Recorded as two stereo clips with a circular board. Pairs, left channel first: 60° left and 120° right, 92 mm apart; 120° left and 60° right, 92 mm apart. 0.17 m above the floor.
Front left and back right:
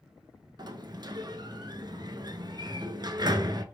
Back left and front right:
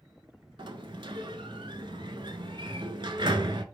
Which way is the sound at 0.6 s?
85° right.